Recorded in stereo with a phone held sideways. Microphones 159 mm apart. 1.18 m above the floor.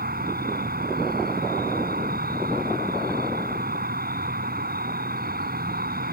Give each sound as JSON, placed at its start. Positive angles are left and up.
{"t": 0.0, "sound": "an insect", "side_deg": -75}